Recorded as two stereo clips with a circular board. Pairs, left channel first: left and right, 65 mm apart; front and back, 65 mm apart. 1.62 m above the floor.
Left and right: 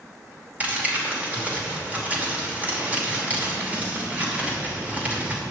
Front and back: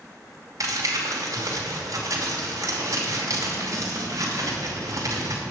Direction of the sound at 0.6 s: 155° right.